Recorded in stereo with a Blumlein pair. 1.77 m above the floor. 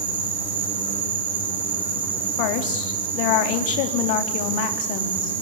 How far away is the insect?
About 5 m.